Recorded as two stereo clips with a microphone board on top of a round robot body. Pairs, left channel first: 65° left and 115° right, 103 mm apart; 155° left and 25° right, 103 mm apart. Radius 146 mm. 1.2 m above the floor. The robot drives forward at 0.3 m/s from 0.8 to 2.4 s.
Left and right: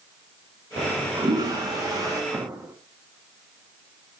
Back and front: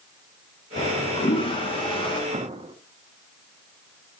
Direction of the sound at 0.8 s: 165° right.